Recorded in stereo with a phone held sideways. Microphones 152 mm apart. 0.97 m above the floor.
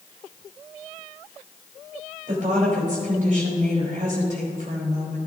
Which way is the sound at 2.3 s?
60° right (ahead or behind).